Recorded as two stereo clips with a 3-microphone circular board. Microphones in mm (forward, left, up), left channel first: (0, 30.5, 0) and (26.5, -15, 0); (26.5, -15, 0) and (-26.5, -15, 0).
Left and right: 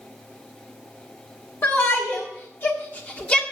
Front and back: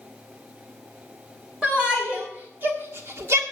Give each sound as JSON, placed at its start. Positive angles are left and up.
{"t": 1.6, "sound": "a shout", "azimuth_deg": 115, "distance_m": 1.7}